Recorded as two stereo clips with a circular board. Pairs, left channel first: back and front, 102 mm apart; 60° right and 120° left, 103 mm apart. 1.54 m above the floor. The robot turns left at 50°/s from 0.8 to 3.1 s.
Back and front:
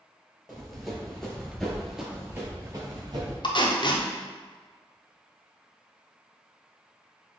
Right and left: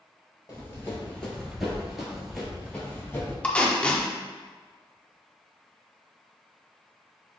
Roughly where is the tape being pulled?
Behind right.